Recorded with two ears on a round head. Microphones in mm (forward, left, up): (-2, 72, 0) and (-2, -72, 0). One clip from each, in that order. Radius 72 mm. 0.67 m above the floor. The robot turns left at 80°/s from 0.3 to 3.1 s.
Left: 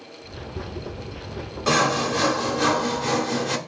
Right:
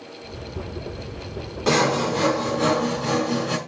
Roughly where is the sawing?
Behind.